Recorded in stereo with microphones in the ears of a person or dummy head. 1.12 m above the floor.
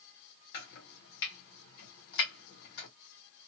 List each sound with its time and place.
0.5 s chopping: 55° left (ahead or behind), 1.3 m